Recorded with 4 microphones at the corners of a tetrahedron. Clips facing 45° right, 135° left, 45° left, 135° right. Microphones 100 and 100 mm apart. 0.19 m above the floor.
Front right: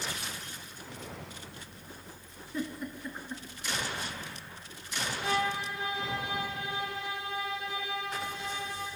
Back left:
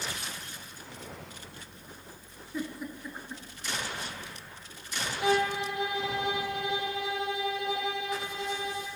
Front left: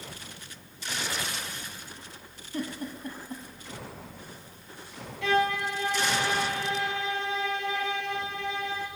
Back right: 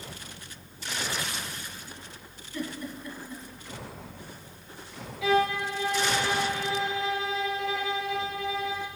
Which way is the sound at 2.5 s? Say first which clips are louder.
Even, front left 1 dB; 50° left.